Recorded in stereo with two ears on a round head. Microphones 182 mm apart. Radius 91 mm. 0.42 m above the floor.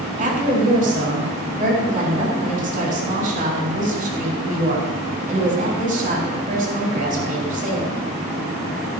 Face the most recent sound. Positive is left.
turn(degrees=-45)  # may be behind; listen again after turning